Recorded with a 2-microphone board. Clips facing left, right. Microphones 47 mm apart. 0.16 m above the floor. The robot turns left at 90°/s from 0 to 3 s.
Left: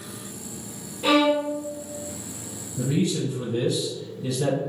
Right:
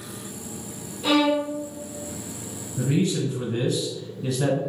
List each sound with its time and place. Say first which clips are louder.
1.0 s a violin: left 1 dB; 55° left, 1.8 m; by 1.5 s 10° left, 1.8 m
2.8 s a man speaking: right 1 dB; 40° right (ahead or behind), 1.3 m; by 4.6 s 45° right (ahead or behind), 1.3 m